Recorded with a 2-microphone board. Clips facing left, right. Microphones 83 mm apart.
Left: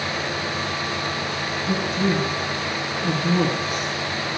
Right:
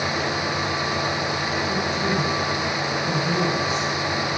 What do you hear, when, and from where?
1.7 s a man speaking: 45° left (ahead or behind), 6.5 m